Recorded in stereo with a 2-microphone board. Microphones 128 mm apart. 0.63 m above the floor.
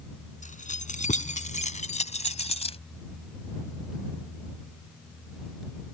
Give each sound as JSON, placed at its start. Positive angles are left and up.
{"t": 0.4, "sound": "keys jangling", "side_deg": 85}